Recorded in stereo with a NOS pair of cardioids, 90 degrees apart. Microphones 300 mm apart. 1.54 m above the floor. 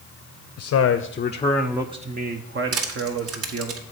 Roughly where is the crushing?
Ahead right.